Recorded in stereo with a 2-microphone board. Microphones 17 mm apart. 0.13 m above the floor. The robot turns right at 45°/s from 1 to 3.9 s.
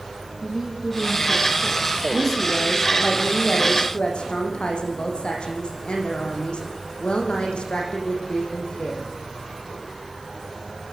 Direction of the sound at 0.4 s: Straight behind.